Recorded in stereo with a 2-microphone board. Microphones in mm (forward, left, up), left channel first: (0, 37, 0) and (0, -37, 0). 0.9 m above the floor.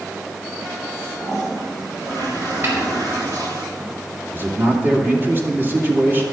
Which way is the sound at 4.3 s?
30° right (ahead or behind).